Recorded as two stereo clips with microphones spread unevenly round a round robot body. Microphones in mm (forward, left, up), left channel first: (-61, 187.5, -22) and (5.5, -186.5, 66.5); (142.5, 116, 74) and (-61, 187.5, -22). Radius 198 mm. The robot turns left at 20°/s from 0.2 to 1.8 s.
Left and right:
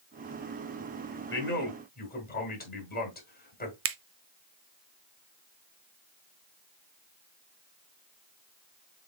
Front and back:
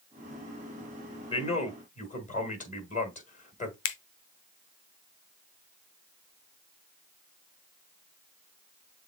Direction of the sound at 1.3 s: 60° left.